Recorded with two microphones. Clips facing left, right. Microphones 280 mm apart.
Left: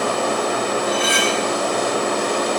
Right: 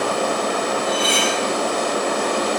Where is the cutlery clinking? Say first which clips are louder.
Left 1 dB; 25° left (ahead or behind), 9 m.